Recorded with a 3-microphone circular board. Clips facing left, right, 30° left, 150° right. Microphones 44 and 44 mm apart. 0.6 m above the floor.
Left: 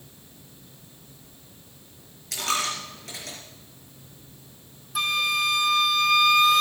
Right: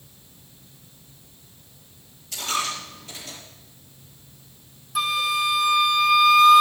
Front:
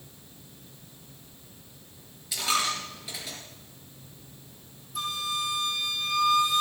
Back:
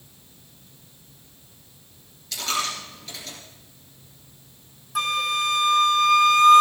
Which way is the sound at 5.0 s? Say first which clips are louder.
Right 2 dB, back 8 dB; 175° right.